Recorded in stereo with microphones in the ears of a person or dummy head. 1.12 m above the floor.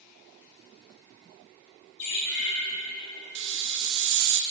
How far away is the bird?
About 2.0 m.